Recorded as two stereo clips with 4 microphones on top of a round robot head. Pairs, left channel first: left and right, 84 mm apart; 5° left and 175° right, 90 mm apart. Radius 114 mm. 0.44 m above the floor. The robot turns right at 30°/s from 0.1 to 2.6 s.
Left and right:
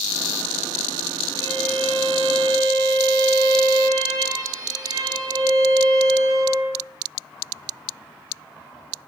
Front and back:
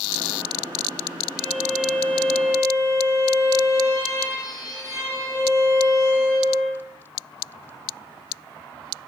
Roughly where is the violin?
Right.